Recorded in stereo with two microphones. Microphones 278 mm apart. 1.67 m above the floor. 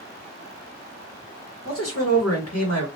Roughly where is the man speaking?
Left.